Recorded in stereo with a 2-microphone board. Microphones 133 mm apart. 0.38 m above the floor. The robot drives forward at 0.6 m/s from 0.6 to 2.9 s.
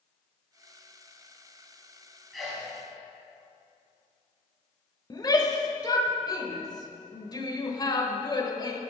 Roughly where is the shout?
Left.